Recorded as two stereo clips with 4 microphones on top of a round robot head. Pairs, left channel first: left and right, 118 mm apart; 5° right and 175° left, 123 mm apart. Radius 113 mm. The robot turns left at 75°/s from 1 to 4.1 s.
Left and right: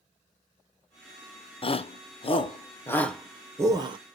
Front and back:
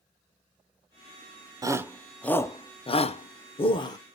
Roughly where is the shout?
Behind left.